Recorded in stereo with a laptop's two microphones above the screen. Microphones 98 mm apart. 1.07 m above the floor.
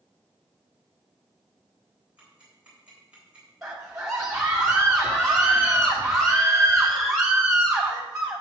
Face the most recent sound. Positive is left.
turn(degrees=-10)  # may be behind; listen again after turning